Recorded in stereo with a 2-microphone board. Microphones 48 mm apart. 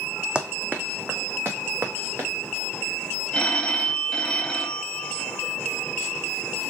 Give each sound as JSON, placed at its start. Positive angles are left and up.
{"t": 0.3, "sound": "running footsteps", "side_deg": -20, "distance_m": 0.9}
{"t": 3.3, "sound": "a phone ringing", "side_deg": 15, "distance_m": 1.0}